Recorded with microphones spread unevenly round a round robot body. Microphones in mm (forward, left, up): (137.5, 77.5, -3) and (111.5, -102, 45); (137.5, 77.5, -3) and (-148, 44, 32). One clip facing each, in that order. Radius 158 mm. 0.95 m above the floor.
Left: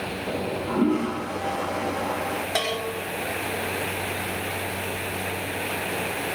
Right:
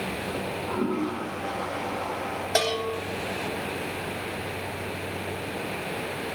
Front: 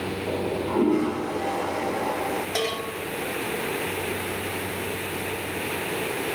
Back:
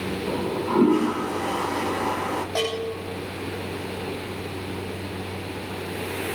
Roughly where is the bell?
Ahead right.